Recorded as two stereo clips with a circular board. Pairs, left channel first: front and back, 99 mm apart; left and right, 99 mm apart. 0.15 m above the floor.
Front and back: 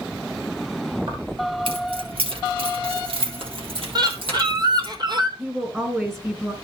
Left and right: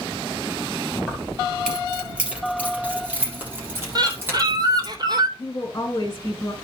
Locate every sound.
1.1 s keys jangling: straight behind, 1.8 m; by 5.0 s 155° right, 3.5 m
4.0 s a bird: 140° right, 1.2 m
5.4 s a woman speaking: 125° left, 1.3 m